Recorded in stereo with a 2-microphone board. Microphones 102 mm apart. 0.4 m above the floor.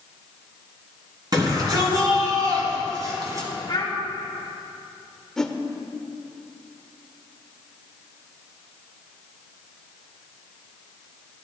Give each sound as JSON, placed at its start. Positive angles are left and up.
{"t": 1.3, "sound": "a shout", "side_deg": -40, "distance_m": 4.5}
{"t": 3.7, "sound": "a child speaking", "side_deg": 40, "distance_m": 1.8}
{"t": 5.4, "sound": "a whoosh", "side_deg": 5, "distance_m": 0.8}